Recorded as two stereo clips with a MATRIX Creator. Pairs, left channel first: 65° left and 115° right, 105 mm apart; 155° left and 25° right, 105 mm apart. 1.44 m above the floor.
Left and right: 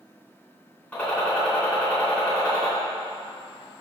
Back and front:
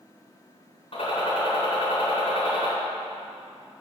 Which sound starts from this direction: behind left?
A gunshot, at 0.9 s.